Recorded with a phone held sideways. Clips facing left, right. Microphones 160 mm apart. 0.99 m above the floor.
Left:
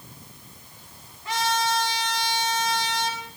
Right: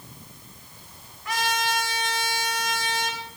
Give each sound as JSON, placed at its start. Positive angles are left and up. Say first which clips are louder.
{"t": 1.2, "sound": "a trumpet", "louder": "left 2 dB", "side_deg": 30, "distance_m": 3.5}